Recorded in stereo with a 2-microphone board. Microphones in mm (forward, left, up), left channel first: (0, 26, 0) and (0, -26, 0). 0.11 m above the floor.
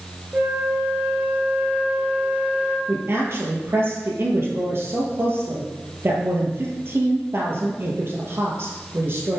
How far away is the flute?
About 1.9 m.